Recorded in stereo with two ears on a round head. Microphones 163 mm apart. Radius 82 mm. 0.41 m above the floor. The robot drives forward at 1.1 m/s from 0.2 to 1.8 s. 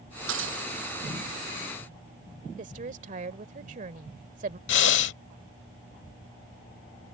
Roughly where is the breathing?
Left.